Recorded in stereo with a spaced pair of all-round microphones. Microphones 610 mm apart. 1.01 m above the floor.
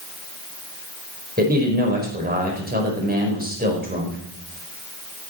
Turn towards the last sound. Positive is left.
turn(degrees=-15)  # may be behind; listen again after turning